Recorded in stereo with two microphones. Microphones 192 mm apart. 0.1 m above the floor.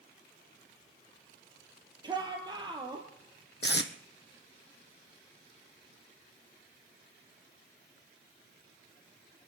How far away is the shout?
About 2.5 m.